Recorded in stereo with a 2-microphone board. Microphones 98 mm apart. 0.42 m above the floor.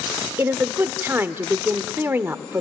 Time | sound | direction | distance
0.4 | a woman speaking | 25° right (ahead or behind) | 0.8 m